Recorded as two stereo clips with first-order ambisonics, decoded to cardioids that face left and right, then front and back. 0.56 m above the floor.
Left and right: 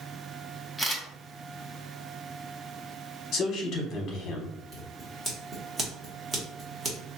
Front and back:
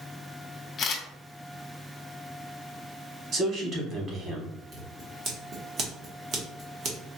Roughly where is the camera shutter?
Ahead.